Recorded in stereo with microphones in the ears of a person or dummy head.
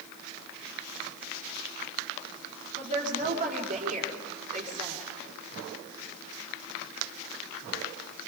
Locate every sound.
2.8 s a woman speaking: 50° right (ahead or behind), 4.5 m